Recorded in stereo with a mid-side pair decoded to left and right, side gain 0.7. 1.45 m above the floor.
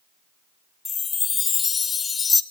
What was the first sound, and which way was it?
A chime, 25° left.